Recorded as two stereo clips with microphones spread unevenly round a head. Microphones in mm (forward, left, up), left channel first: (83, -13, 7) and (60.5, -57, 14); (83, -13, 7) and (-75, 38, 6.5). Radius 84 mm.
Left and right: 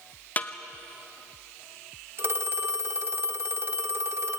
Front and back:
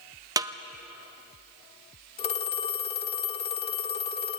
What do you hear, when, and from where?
0.4 s a snare drum: 100° left, 1.0 m
2.2 s a phone ringing: 80° right, 1.8 m